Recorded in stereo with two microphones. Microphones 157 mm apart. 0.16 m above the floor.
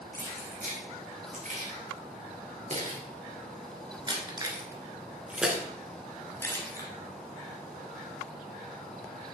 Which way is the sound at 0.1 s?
65° right (ahead or behind).